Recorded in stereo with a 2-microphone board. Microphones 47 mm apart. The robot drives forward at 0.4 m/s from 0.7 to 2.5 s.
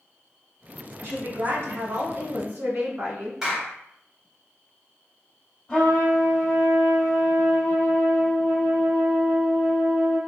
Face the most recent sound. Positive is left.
turn(degrees=15)  # may be behind; listen again after turning